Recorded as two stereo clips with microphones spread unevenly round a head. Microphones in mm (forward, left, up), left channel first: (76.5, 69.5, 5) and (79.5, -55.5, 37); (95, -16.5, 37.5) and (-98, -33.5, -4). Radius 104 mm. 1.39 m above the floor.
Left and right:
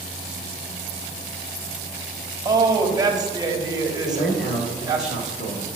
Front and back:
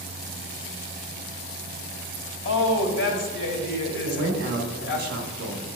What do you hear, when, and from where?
2.5 s a woman speaking: 25° right, 1.7 m
4.0 s a man speaking: 135° left, 1.0 m